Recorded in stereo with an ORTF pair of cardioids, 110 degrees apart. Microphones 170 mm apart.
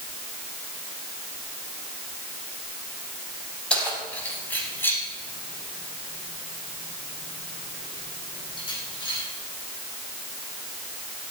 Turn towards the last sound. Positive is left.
turn(degrees=30)